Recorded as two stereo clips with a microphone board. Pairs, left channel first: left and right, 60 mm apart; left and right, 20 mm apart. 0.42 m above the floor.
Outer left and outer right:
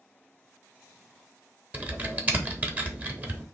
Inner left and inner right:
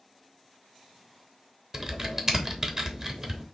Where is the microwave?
I don't hear a microwave.